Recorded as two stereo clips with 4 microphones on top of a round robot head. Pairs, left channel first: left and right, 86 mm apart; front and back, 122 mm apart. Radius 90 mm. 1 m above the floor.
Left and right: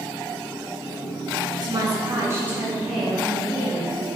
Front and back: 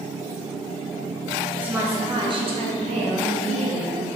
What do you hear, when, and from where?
1.6 s a woman speaking: 105° right, 1.3 m; by 4.1 s 160° left, 2.5 m